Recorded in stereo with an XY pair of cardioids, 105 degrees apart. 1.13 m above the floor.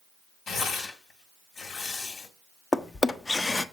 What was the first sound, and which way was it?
Tearing paper, 60° left.